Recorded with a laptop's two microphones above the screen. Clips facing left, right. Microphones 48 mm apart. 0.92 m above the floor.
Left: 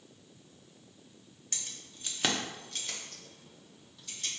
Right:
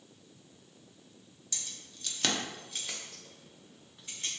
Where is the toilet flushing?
I don't hear a toilet flushing.